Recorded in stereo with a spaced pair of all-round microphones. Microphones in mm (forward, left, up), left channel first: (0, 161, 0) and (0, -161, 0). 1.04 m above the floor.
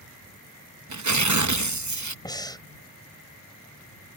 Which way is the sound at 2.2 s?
10° left (ahead or behind).